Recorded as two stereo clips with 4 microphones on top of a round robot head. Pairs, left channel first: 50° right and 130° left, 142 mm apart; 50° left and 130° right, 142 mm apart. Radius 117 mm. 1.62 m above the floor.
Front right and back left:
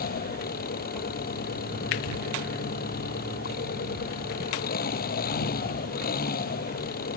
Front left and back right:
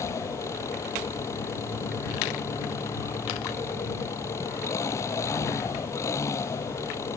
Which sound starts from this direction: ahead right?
An engine running, at 0.0 s.